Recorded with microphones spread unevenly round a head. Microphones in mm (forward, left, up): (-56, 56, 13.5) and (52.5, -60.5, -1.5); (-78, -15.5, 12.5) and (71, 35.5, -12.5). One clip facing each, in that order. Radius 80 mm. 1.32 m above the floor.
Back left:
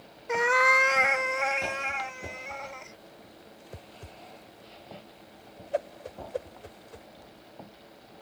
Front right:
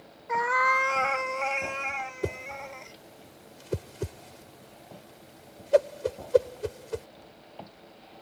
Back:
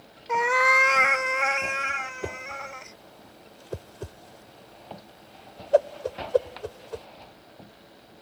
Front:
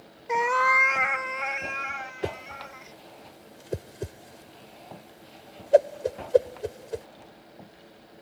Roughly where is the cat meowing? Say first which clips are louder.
Back left 2 dB, back 1 dB; left.